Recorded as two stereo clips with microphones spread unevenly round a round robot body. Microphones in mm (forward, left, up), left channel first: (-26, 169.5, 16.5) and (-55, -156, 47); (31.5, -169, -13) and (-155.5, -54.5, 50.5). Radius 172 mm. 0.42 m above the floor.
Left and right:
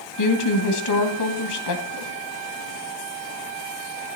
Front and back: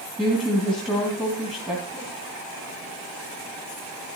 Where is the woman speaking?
55° left, 2.5 m.